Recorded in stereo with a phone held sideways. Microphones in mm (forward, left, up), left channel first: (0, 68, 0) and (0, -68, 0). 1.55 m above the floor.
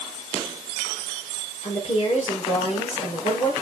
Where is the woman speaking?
50° left (ahead or behind), 4 m.